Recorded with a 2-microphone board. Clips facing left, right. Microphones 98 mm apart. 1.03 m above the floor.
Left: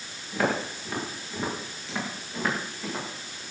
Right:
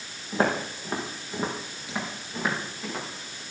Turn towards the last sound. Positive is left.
turn(degrees=5)  # may be behind; listen again after turning